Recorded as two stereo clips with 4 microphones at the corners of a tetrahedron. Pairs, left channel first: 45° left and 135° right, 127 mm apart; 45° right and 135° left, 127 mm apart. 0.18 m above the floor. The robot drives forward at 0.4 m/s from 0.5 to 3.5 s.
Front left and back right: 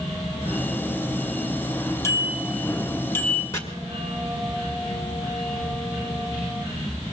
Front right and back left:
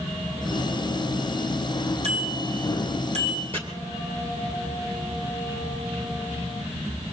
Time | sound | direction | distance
2.0 | a bicycle bell | 110° left | 4 m
3.5 | chopping | 110° left | 2 m